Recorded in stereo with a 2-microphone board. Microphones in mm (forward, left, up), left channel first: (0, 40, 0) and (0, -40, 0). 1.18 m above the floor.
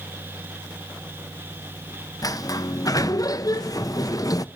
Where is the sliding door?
50° left (ahead or behind), 0.5 m.